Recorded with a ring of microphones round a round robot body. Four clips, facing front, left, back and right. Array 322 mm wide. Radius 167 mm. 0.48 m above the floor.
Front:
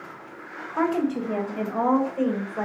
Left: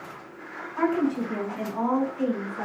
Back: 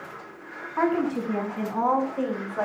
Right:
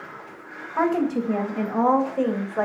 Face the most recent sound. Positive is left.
turn(degrees=-70)